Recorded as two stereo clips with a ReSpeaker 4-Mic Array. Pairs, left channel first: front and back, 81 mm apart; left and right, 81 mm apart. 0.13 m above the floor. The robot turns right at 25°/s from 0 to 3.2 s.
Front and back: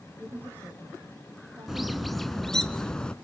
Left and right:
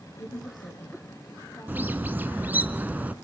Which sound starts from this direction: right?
A bird, at 1.7 s.